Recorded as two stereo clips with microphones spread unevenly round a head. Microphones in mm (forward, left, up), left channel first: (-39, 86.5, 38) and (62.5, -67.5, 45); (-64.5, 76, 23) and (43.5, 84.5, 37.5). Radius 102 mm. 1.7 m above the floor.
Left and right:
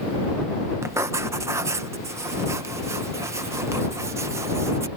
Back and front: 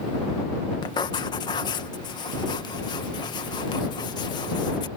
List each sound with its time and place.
0.8 s writing: 125° right